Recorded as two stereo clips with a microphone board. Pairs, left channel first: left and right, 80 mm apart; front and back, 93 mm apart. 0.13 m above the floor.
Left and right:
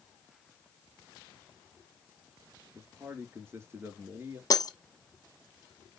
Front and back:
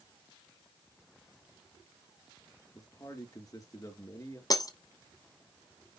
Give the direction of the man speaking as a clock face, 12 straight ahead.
1 o'clock.